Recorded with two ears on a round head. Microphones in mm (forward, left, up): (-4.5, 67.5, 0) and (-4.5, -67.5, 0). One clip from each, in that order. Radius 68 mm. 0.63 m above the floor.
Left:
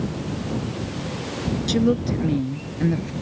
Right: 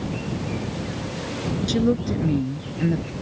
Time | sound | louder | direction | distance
1.7 | a woman speaking | left 1 dB | 5° left (ahead or behind) | ?